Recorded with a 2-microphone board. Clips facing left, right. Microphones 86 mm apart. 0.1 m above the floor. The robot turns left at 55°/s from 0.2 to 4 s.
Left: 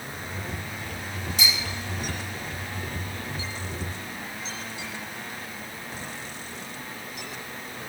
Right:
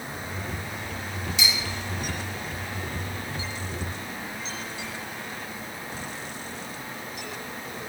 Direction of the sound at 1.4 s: 50° left (ahead or behind).